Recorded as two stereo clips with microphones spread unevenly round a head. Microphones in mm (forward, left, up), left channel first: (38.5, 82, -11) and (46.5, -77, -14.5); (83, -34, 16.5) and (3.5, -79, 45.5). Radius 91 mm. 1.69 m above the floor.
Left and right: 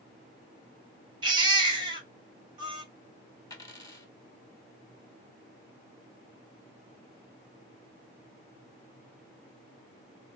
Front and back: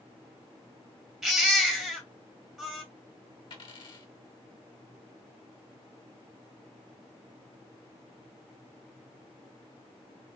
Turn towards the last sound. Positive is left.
turn(degrees=50)